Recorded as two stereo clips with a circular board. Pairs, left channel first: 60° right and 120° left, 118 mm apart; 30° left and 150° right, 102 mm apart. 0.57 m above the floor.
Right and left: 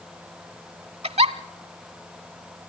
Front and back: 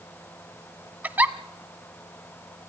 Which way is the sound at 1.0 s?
140° left.